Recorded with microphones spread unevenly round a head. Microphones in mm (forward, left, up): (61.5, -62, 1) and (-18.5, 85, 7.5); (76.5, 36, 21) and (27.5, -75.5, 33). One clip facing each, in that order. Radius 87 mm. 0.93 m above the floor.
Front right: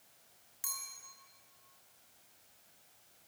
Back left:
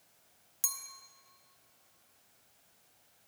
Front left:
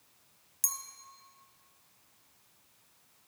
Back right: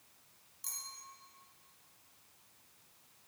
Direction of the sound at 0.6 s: 80° left.